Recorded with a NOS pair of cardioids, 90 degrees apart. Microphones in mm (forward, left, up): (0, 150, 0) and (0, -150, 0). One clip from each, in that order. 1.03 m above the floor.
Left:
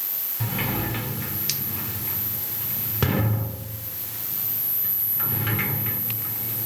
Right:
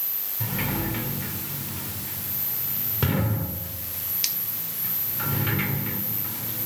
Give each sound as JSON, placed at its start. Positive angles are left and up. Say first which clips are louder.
{"t": 0.4, "sound": "a sliding door", "louder": "left 1 dB", "azimuth_deg": 30, "distance_m": 2.0}